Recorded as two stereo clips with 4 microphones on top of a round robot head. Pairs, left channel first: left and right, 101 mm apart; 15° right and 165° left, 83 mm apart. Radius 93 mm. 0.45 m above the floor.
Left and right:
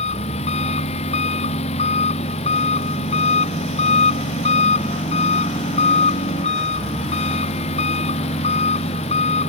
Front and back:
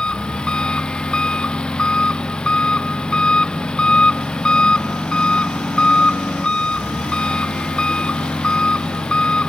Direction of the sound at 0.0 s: 65° left.